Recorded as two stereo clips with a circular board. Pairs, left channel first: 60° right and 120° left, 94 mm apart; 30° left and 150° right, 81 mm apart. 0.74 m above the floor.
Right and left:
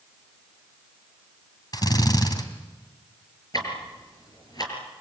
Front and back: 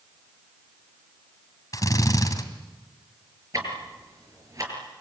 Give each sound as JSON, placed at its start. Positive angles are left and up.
{"t": 1.7, "sound": "a drill", "azimuth_deg": -15, "distance_m": 2.5}
{"t": 3.5, "sound": "ticking", "azimuth_deg": -105, "distance_m": 6.0}